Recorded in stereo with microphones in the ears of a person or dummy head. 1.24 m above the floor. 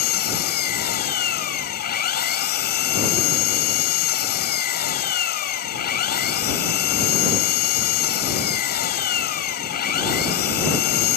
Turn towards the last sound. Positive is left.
turn(degrees=55)  # may be behind; listen again after turning